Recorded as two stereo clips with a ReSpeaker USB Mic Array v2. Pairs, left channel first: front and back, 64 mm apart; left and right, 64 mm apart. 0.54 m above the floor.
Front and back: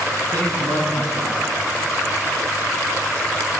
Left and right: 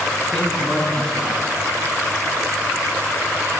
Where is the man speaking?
170° left, 9.5 m.